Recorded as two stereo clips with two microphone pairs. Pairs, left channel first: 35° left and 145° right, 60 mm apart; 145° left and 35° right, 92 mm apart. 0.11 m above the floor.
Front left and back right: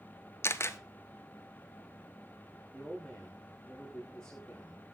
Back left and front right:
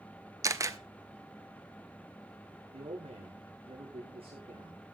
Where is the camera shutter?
5° left, 0.9 m.